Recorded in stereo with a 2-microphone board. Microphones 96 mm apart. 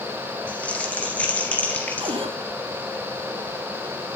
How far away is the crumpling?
About 2 m.